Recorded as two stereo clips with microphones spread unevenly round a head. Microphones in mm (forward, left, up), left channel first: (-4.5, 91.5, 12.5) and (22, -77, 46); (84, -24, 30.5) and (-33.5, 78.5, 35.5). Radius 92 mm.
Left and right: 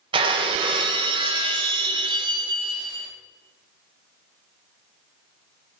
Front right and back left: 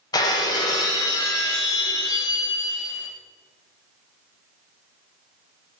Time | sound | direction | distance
0.1 | breaking glass | 100° right | 1.0 m